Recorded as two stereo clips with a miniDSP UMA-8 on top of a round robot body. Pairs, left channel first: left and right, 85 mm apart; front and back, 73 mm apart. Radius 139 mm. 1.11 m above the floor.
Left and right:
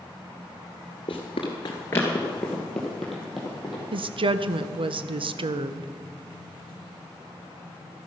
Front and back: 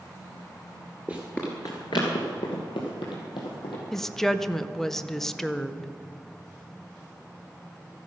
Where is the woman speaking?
85° right, 0.7 m.